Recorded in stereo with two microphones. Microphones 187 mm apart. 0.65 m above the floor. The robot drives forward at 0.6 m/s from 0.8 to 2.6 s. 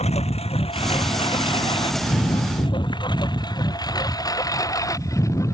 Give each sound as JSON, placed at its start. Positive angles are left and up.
{"t": 0.0, "sound": "a lawn mower", "side_deg": 35}